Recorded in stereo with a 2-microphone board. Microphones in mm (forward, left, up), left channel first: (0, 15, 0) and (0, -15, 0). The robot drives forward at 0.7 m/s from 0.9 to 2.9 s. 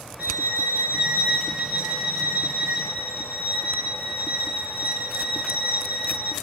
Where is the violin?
60° right (ahead or behind), 2.5 m; by 6.3 s 70° right (ahead or behind), 2 m.